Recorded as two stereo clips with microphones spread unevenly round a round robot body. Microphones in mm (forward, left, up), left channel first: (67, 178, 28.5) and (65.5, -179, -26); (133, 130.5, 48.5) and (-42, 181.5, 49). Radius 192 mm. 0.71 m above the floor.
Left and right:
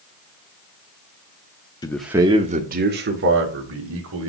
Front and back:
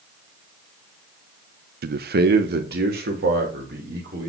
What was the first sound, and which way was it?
A man speaking, 175° left.